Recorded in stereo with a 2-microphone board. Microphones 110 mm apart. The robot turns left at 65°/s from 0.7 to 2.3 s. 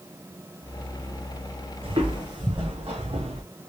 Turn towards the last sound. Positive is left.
turn(degrees=-65)  # may be behind; listen again after turning